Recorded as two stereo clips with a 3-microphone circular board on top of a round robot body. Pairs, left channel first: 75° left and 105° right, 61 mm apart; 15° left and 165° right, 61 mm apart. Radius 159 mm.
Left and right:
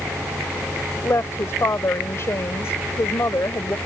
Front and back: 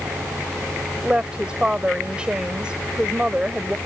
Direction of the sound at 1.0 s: 120° left.